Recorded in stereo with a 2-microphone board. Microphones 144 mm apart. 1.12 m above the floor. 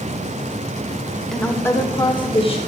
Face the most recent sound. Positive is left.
turn(degrees=45)  # may be behind; listen again after turning